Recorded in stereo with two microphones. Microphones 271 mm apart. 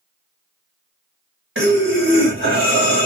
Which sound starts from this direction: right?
Breathing, at 1.6 s.